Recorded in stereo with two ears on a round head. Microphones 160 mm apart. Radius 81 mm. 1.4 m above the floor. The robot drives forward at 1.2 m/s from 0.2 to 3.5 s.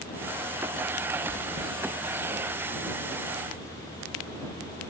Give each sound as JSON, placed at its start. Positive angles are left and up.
{"t": 1.3, "sound": "chewing", "side_deg": -75, "distance_m": 6.0}